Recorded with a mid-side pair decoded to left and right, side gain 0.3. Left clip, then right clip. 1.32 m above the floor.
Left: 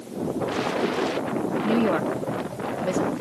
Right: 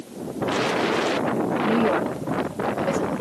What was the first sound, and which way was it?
A woman speaking, 15° left.